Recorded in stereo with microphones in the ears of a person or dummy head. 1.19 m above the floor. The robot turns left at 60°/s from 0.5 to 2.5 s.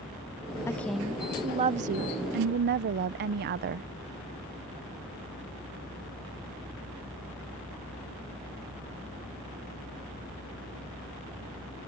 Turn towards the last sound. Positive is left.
turn(degrees=-95)